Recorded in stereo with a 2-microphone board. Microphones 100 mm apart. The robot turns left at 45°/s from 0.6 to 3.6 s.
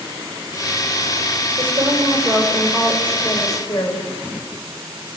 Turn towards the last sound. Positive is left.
turn(degrees=145)